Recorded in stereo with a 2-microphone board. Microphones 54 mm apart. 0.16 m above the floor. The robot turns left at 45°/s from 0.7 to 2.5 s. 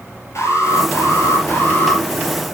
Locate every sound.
0.3 s an alarm: 105° left, 4 m; by 2.0 s 45° left, 4 m